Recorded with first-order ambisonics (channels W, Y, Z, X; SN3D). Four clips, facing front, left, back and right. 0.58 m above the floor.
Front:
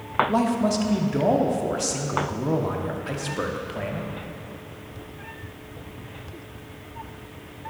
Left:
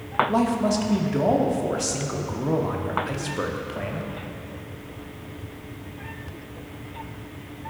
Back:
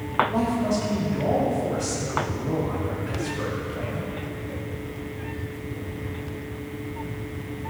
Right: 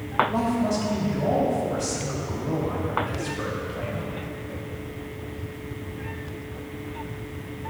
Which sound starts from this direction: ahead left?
A man speaking, at 0.3 s.